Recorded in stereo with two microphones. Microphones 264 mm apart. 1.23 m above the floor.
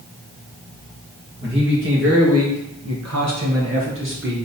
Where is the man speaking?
40° right (ahead or behind), 1.8 m.